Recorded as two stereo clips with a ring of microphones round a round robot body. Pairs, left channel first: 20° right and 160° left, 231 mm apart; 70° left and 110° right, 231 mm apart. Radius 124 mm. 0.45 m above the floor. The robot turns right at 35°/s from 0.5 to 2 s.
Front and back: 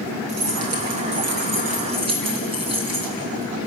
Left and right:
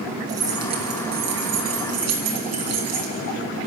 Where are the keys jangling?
175° left, 3 m; by 3.1 s 135° right, 3 m.